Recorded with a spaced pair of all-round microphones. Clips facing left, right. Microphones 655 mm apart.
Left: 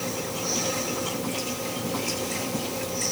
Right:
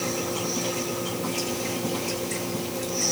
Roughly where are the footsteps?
I don't hear footsteps.